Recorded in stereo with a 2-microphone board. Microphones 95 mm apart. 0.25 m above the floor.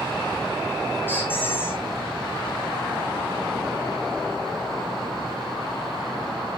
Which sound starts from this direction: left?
A squeak, at 1.1 s.